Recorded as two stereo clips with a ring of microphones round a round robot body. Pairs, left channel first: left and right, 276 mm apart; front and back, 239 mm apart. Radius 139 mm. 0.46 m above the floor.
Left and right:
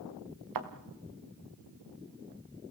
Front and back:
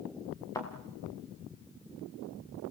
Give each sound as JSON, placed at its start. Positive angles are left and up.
{"t": 0.6, "sound": "a thud", "azimuth_deg": -80, "distance_m": 2.5}